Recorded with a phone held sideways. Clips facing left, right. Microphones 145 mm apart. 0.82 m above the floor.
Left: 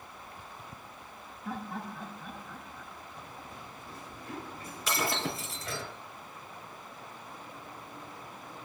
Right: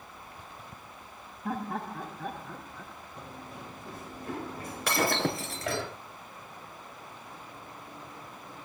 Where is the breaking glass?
65° right (ahead or behind), 3.5 m.